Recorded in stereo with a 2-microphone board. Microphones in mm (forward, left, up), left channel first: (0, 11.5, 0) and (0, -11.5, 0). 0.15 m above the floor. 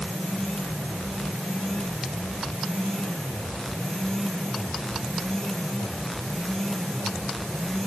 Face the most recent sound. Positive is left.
No sound to turn to.